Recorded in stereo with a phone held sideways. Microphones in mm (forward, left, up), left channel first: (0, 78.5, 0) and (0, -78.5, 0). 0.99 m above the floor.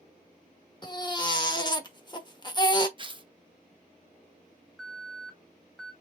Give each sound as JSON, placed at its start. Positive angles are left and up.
{"t": 0.8, "sound": "a baby crying", "side_deg": 30, "distance_m": 0.8}
{"t": 3.0, "sound": "tearing paper", "side_deg": -30, "distance_m": 0.5}
{"t": 4.8, "sound": "an alarm", "side_deg": 5, "distance_m": 2.0}